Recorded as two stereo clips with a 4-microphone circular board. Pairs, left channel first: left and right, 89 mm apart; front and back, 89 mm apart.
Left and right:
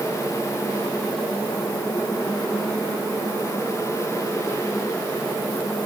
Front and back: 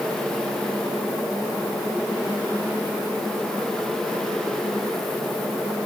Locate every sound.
Only background noise.